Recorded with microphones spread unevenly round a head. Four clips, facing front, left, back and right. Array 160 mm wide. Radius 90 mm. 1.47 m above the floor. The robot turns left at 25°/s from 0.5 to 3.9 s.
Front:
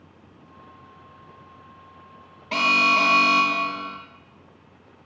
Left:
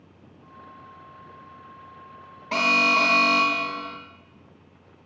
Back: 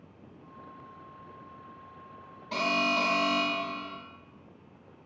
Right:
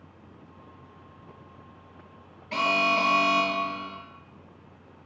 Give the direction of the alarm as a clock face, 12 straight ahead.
10 o'clock.